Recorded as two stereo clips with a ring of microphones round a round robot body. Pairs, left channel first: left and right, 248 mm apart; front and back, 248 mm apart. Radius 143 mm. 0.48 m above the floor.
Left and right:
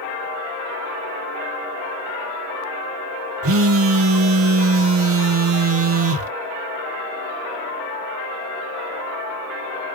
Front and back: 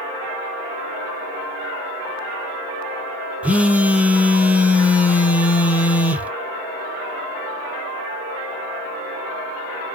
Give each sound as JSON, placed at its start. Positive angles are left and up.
{"t": 3.4, "sound": "a phone buzzing", "azimuth_deg": -95, "distance_m": 0.8}